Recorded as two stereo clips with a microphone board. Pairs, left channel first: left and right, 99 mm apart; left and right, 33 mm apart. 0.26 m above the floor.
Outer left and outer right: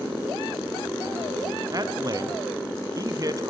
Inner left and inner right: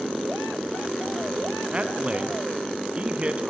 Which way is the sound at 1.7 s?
35° right (ahead or behind).